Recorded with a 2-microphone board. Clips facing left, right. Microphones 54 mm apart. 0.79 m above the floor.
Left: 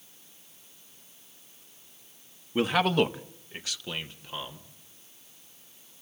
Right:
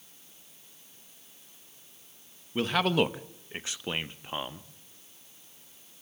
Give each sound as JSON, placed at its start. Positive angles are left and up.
{"t": 2.5, "sound": "a man speaking", "side_deg": 15, "distance_m": 0.8}